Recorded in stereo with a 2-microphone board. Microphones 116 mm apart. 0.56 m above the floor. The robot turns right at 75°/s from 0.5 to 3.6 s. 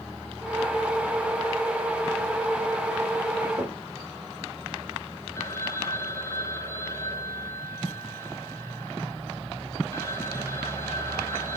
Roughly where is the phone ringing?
Left.